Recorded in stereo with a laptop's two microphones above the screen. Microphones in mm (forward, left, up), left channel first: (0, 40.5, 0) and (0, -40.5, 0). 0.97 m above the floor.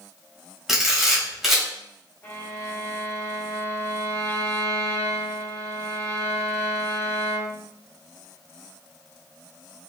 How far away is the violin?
About 2 m.